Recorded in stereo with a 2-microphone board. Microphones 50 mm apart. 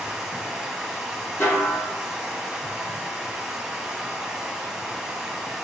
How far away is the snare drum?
About 2.5 m.